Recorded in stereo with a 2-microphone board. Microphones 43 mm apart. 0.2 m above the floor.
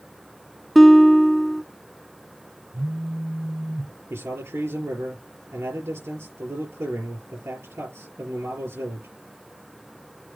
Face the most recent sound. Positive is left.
turn(degrees=-70)  # may be behind; listen again after turning